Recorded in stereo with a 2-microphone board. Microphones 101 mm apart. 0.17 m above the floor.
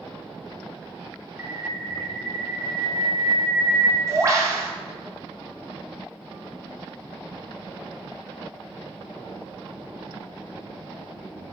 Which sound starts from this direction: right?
A bird, at 1.4 s.